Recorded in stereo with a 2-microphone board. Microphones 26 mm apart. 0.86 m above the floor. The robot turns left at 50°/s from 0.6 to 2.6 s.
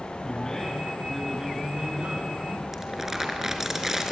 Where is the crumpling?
15° right (ahead or behind), 3.5 m.